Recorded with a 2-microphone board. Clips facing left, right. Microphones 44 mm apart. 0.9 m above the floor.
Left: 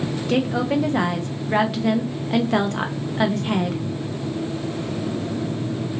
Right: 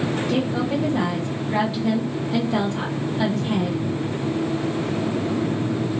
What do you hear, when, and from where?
0.3 s a woman speaking: 60° left (ahead or behind), 0.6 m